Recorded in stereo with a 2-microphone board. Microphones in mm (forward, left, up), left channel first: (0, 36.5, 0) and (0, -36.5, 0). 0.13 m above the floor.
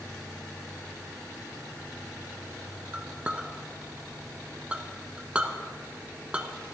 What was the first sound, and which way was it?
A clink, 15° right (ahead or behind).